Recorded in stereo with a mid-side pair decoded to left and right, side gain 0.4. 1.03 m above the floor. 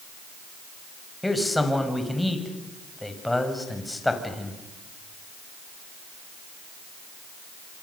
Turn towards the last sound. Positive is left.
turn(degrees=10)